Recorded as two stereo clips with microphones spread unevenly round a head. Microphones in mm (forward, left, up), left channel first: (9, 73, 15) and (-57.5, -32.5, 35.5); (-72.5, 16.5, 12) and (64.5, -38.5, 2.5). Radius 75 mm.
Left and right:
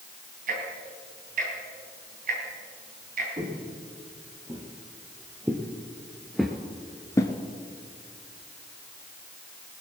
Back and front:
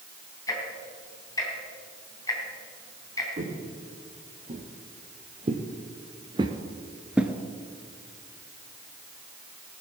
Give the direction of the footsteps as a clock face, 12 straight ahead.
2 o'clock.